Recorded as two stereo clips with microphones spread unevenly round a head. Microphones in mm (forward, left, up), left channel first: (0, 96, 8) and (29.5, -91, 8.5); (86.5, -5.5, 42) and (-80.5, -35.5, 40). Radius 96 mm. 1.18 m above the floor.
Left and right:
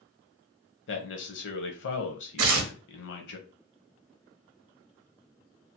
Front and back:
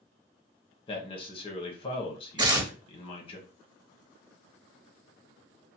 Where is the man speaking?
70° left, 0.9 m.